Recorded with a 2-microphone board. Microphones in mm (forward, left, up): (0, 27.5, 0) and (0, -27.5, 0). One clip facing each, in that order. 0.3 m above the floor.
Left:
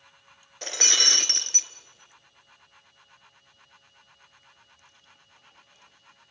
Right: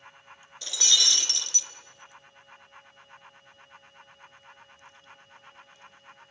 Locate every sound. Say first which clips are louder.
0.6 s breaking glass: left 1 dB; 50° left (ahead or behind), 1.1 m